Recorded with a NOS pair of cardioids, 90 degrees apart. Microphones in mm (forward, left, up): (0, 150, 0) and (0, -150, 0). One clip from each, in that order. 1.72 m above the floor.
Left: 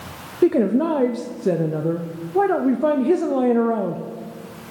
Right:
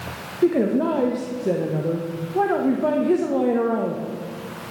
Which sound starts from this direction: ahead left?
A woman speaking, at 0.4 s.